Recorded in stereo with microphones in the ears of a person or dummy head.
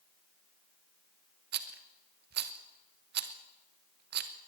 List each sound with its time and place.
1.5 s a rattle: 55° right (ahead or behind), 1.0 m